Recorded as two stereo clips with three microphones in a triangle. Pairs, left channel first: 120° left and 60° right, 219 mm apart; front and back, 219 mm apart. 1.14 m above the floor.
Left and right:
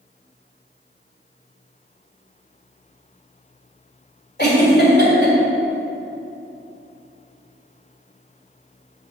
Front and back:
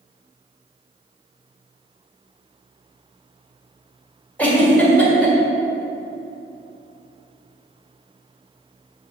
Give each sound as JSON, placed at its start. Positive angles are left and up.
{"t": 4.4, "sound": "a giggle", "azimuth_deg": 85, "distance_m": 1.8}